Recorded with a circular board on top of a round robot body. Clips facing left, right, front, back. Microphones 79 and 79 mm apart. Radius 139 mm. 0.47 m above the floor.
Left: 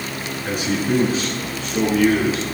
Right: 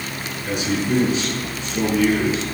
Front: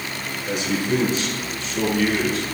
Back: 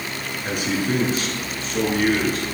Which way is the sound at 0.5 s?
140° left.